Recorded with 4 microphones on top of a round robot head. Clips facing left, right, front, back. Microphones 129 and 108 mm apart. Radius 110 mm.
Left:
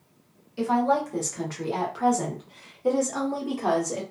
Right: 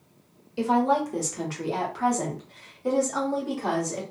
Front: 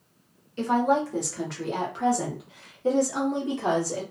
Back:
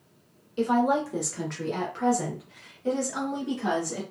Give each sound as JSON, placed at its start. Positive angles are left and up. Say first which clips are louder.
{"t": 0.6, "sound": "a woman speaking", "louder": "right 1 dB, even", "azimuth_deg": -130, "distance_m": 1.1}